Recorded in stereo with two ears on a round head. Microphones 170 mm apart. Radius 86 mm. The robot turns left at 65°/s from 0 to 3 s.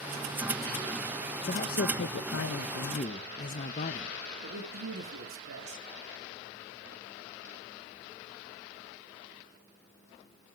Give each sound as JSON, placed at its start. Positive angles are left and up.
{"t": 1.5, "sound": "a man speaking", "azimuth_deg": 140, "distance_m": 0.5}
{"t": 4.4, "sound": "a man speaking", "side_deg": -70, "distance_m": 1.6}